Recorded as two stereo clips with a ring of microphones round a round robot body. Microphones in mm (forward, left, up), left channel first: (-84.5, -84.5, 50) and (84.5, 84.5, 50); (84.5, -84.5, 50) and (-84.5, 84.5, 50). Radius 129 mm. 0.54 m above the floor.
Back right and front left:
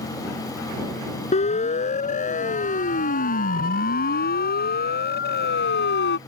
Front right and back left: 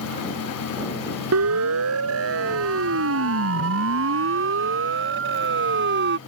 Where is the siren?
160° left; by 6.2 s straight behind.